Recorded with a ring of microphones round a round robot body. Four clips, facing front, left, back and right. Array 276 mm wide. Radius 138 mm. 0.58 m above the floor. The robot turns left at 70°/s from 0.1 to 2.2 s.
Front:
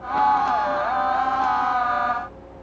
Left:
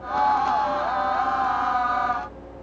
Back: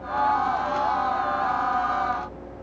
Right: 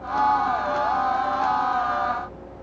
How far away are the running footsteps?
I don't hear running footsteps.